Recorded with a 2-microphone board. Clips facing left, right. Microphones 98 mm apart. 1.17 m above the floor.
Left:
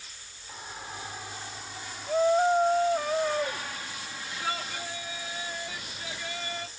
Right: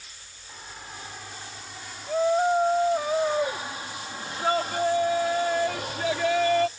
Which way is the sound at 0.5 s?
10° left (ahead or behind).